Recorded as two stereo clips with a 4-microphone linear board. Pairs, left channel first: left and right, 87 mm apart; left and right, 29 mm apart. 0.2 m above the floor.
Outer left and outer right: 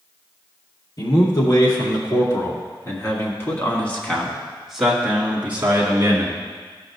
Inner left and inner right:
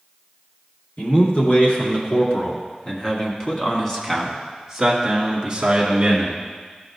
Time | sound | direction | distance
1.0 | a man speaking | 55° left (ahead or behind) | 3 m